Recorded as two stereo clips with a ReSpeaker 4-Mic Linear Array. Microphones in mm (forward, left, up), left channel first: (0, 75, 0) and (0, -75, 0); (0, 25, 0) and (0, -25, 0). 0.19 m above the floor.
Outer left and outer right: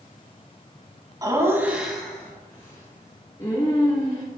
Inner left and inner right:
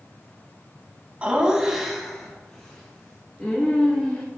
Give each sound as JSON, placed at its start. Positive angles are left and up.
{"t": 1.2, "sound": "laughter", "side_deg": -25, "distance_m": 1.4}